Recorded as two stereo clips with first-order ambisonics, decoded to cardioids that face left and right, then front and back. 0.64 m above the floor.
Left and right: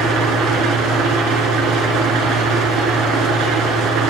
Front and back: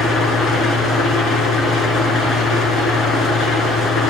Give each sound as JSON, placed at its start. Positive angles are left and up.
{"t": 0.0, "sound": "an engine running", "azimuth_deg": -65, "distance_m": 2.5}